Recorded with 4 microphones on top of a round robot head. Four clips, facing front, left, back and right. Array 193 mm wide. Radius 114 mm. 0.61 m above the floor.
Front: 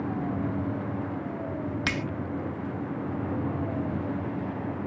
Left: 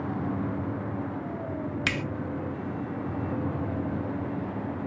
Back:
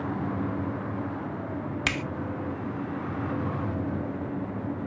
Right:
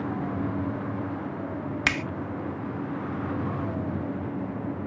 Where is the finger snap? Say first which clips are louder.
Right 5 dB, back 1 dB; 95° right, 0.6 m.